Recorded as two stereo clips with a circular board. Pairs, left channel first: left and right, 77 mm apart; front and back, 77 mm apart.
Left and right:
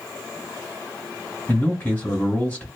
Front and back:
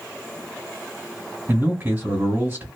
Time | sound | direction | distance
1.5 | a man speaking | 140° left | 1.4 m